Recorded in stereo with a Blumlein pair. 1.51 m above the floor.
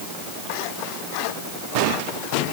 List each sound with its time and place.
Only background noise.